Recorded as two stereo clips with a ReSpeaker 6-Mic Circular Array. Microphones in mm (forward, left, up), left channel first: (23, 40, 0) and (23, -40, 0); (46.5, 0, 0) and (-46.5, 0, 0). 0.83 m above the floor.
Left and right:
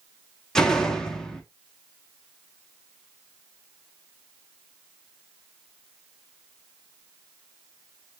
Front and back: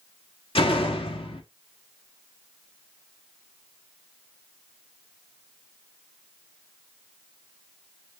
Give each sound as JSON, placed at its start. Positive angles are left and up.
{"t": 0.6, "sound": "a door slam", "azimuth_deg": 5, "distance_m": 0.8}